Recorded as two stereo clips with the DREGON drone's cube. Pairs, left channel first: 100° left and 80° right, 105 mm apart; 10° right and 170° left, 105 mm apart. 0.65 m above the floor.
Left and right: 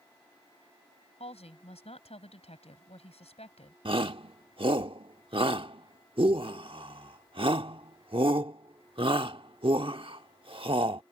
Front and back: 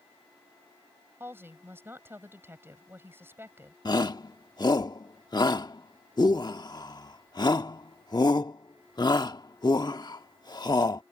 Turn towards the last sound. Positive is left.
turn(degrees=-55)